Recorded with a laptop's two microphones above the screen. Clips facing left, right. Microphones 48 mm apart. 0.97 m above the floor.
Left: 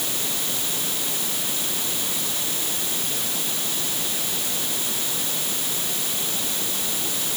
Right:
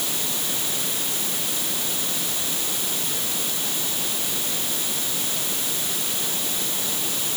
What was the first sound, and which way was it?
Only background noise.